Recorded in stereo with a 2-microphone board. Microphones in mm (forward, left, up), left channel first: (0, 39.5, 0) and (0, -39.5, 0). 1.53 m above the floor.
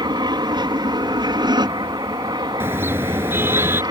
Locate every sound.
0.0 s an aircraft: 70° right (ahead or behind); by 3.9 s 60° right (ahead or behind)
2.6 s a car horn: 30° right (ahead or behind)